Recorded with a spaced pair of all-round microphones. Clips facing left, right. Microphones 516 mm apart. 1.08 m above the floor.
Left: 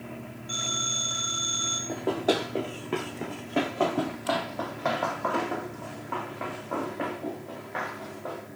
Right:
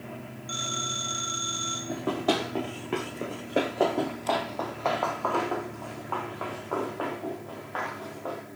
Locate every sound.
0.5 s a phone ringing: 35° right (ahead or behind), 4 m
1.9 s running footsteps: 30° right (ahead or behind), 1.5 m; by 8.4 s 45° left (ahead or behind), 5.5 m